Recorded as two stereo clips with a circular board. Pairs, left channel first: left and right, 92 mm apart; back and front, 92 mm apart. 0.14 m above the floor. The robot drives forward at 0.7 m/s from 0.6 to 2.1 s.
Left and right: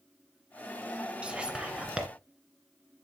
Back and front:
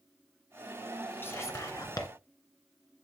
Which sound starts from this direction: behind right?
Whispering, at 1.2 s.